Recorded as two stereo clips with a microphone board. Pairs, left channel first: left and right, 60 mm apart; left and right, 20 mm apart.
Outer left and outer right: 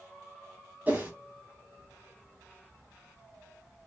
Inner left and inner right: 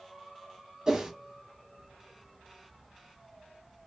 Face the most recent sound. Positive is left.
turn(degrees=-30)  # may be behind; listen again after turning